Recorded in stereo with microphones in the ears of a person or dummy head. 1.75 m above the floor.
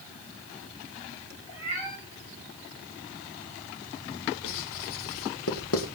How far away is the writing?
About 2.5 m.